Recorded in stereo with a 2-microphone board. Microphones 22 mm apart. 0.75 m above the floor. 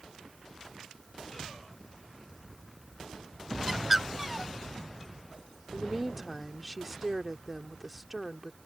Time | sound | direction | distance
3.7 | a bird | 5° right (ahead or behind) | ?
5.7 | a woman speaking | 15° right (ahead or behind) | ?